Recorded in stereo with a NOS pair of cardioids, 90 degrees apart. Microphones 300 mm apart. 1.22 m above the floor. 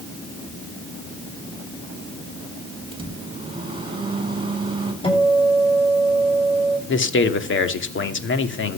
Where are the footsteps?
I don't hear footsteps.